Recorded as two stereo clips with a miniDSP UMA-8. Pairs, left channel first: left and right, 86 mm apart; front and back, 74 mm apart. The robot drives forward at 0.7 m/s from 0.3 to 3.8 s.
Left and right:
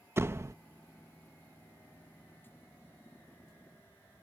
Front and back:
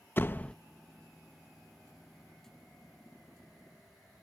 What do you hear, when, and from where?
0.2 s a door slam: 45° right; by 0.6 s 65° right